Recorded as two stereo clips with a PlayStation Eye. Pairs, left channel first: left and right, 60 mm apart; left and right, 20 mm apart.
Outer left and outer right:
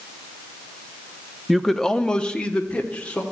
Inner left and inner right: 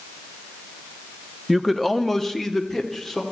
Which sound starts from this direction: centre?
A man speaking, at 1.5 s.